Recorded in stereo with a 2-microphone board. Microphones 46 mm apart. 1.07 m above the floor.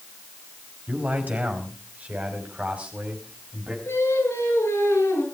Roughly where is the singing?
Left.